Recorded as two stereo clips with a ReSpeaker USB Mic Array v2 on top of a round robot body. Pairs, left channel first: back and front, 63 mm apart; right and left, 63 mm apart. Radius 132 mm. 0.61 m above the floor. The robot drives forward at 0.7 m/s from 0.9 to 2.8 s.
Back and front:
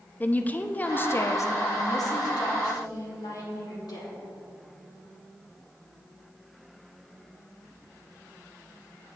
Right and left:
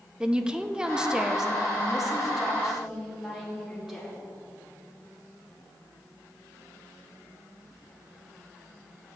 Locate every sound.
0.2 s a woman speaking: 155° left, 0.6 m; by 4.2 s 175° left, 1.6 m